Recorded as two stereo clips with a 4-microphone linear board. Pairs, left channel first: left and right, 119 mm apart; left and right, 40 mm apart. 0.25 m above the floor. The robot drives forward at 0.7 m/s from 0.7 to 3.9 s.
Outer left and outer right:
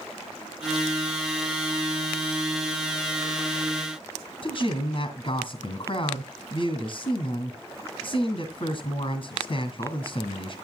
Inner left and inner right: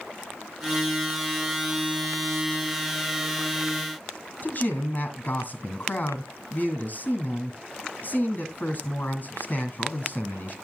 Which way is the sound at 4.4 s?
45° left (ahead or behind).